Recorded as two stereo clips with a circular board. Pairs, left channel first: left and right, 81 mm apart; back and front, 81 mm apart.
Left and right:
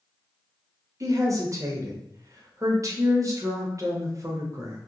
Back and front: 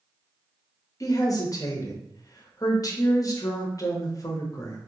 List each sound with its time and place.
1.0 s a woman speaking: 135° right, 0.9 m